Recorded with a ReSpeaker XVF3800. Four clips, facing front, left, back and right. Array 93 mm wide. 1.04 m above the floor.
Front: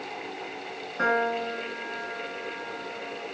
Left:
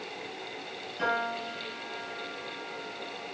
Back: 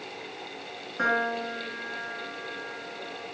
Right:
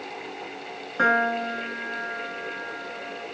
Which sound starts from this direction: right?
A piano, at 1.0 s.